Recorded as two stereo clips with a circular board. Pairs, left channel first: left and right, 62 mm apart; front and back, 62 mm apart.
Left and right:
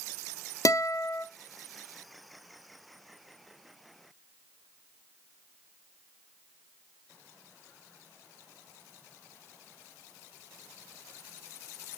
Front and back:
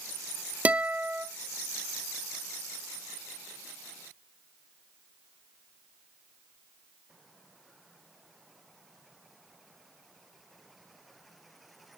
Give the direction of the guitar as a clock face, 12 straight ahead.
8 o'clock.